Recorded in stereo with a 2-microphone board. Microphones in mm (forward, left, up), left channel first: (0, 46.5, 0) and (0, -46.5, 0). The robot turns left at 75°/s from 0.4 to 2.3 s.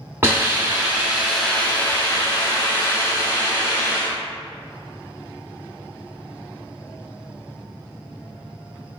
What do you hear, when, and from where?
0.2 s a hiss: 25° right (ahead or behind), 1.1 m; by 4.2 s 25° left (ahead or behind), 1.1 m